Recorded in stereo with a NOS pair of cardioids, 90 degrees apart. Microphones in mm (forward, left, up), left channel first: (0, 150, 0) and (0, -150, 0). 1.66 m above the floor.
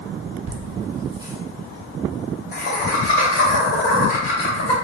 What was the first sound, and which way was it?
Laughter, 50° right.